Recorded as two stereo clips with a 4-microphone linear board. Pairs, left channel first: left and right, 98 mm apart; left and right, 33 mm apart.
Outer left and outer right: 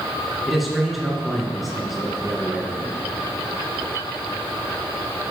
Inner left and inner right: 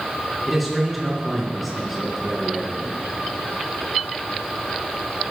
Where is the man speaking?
Centre (ahead or behind), 1.8 m.